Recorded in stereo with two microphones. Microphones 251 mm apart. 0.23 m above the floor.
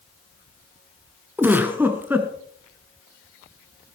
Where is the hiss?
No hiss in this recording.